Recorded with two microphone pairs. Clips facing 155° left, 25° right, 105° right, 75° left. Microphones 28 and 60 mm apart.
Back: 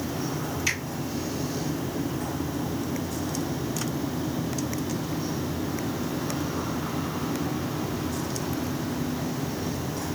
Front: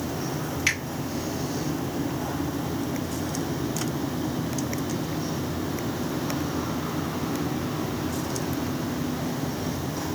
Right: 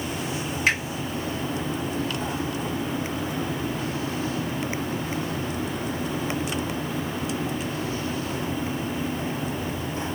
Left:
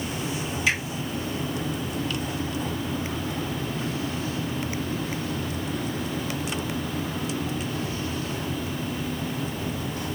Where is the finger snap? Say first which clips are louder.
Front 3 dB, right 2 dB; 70° right, 1.8 m.